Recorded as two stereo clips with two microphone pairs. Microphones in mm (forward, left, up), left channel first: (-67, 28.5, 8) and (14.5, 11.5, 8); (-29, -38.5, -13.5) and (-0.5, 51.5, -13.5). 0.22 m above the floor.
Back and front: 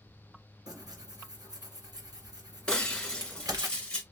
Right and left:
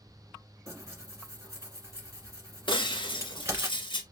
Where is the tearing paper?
15° left, 1.8 m.